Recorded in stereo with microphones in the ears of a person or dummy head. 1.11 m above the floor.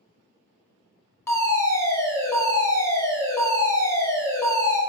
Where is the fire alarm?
20° left (ahead or behind), 2.5 m.